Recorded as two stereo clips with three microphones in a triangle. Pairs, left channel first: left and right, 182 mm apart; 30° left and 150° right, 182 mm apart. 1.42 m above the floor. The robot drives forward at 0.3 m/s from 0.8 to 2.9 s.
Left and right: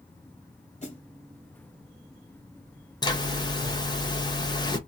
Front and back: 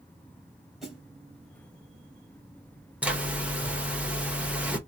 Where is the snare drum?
125° left, 1.7 m.